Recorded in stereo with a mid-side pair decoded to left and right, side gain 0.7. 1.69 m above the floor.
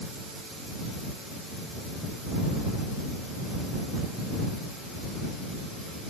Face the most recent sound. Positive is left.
No sound to turn to.